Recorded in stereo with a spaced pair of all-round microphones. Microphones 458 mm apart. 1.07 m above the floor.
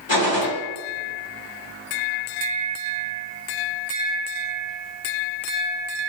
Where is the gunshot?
70° left (ahead or behind), 2.5 m.